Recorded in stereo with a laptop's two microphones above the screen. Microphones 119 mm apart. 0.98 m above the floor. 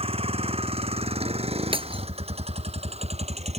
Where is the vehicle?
60° right (ahead or behind); by 3.6 s 70° right (ahead or behind).